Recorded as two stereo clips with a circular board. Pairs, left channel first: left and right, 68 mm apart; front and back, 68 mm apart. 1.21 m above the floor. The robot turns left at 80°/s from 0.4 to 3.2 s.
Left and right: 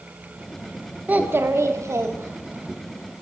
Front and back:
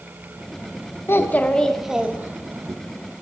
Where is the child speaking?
30° right, 0.5 m; by 2.8 s 165° right, 0.5 m.